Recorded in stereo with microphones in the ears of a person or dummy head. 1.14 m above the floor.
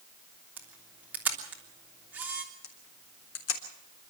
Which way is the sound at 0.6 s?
10° right (ahead or behind).